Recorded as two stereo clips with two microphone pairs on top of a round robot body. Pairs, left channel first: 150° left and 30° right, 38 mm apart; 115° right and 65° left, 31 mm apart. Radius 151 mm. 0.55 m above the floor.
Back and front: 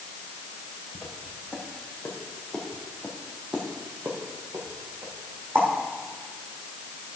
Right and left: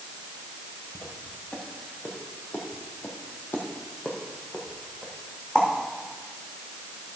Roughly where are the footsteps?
Behind right.